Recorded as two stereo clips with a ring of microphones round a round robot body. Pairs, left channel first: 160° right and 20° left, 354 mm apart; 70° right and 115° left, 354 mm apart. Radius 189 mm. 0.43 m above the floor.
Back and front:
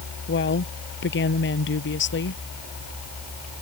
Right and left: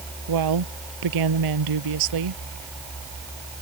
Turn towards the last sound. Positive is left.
turn(degrees=145)